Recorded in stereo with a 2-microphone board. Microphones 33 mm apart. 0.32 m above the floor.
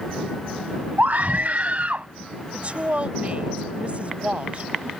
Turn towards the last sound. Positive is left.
turn(degrees=-40)  # may be behind; listen again after turning